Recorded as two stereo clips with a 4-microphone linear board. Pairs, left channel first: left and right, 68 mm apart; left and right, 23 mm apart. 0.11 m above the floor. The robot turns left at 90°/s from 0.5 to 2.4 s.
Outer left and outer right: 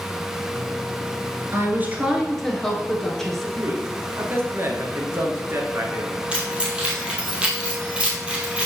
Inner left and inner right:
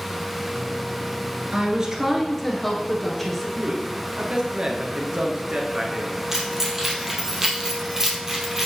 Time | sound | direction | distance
1.5 | a woman speaking | 110° right | 1.5 m
3.6 | a man speaking | 40° right (ahead or behind) | 1.5 m
6.3 | keys jangling | 15° right (ahead or behind) | 2.0 m